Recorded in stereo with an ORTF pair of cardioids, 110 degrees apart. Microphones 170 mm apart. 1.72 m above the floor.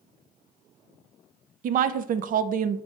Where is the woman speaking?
55° right, 0.6 m.